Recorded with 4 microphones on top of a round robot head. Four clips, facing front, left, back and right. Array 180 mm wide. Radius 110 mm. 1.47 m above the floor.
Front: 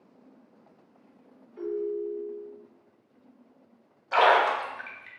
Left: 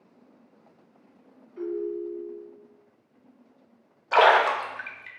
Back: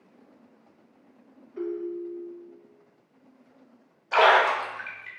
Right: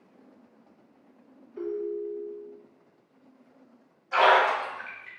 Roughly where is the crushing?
No crushing in this recording.